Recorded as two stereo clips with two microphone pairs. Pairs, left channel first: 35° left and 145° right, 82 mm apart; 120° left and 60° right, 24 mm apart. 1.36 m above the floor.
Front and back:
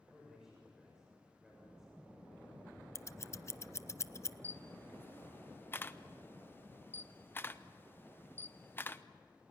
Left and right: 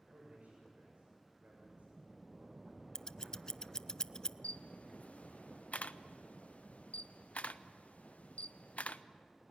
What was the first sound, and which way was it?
A man speaking, 60° right.